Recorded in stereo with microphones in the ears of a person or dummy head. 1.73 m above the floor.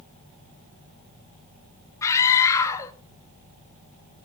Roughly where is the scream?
Left.